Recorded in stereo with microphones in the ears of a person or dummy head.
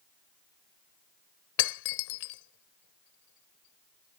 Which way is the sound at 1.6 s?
70° left (ahead or behind).